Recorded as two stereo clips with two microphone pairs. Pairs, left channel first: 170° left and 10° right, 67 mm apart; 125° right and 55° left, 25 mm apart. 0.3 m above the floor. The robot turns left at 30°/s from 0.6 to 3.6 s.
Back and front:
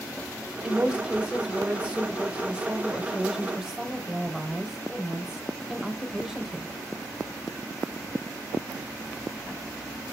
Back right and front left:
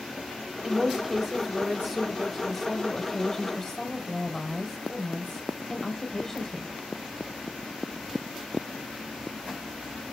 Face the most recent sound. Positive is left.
turn(degrees=-75)